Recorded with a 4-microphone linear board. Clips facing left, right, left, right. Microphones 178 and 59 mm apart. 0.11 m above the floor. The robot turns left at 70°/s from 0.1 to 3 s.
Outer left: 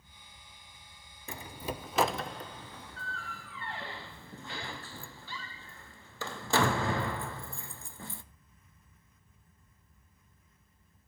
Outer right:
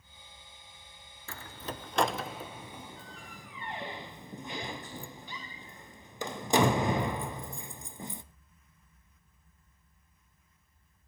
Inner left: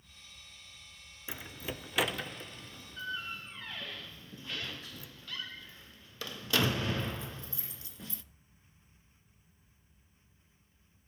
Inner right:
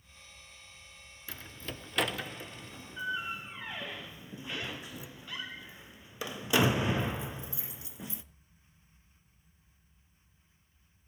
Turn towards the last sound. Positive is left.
turn(degrees=-15)  # may be behind; listen again after turning